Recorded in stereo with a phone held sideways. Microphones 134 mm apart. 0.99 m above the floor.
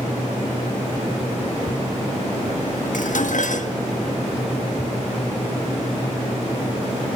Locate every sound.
2.9 s dishes clattering: 80° left, 1.0 m